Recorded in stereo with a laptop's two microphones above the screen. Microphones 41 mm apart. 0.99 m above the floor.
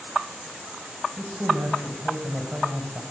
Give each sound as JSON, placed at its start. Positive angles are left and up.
{"t": 1.2, "sound": "a woman speaking", "side_deg": -60, "distance_m": 4.5}